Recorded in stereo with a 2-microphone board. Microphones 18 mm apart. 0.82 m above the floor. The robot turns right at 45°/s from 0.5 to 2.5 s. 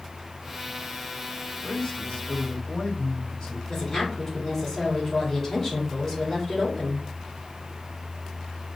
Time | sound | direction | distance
1.6 | a man speaking | 80° left | 1.5 m
3.7 | a woman speaking | 25° left (ahead or behind) | 2.5 m